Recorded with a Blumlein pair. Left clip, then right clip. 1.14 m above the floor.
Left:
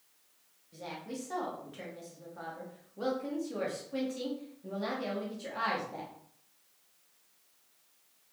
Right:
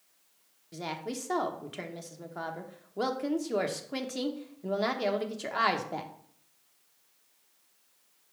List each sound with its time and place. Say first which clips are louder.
0.7 s a woman speaking: right 5 dB; 50° right, 1.2 m